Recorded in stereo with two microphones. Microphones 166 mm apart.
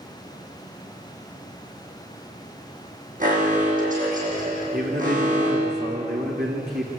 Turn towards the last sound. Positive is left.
turn(degrees=-80)